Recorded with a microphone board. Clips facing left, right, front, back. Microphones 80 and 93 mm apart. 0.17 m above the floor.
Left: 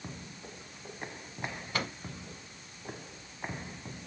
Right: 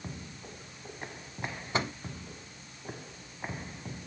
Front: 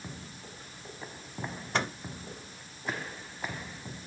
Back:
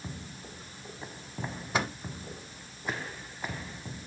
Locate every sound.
1.7 s a microwave: 105° right, 1.0 m